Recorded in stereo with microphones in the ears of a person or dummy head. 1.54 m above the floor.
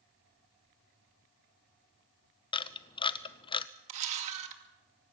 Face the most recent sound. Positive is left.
turn(degrees=-40)  # may be behind; listen again after turning